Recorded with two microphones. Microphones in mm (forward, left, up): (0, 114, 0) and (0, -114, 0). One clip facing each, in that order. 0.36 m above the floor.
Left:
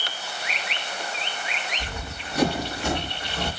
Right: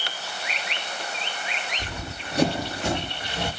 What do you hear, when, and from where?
1.8 s running footsteps: 35° right (ahead or behind), 4 m; by 3.5 s 15° right (ahead or behind), 4.5 m